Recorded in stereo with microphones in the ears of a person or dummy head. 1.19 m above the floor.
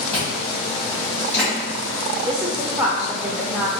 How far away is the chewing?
About 1.8 m.